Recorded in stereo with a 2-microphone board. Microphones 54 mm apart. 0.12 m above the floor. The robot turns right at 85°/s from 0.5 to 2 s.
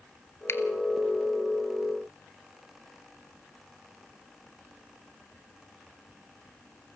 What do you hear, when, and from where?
0.5 s a finger snap: 55° left (ahead or behind), 1.7 m; by 0.6 s 50° left (ahead or behind), 1.7 m